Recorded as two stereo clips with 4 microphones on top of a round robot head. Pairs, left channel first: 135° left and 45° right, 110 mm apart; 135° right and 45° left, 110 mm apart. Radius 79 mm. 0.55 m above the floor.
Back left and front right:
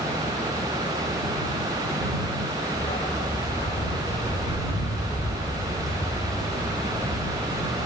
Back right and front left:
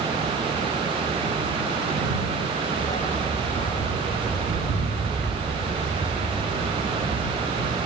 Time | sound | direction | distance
2.8 | a dog barking | straight behind | ?